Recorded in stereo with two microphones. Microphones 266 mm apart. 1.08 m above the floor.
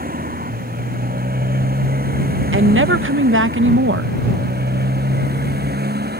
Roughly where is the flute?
I don't hear a flute.